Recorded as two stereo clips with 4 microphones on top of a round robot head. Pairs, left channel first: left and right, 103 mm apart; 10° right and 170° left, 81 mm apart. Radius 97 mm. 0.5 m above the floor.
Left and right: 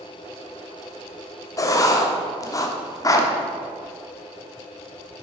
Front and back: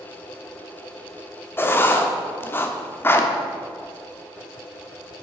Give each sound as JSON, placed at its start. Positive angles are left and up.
{"t": 1.6, "sound": "writing", "azimuth_deg": 45, "distance_m": 1.0}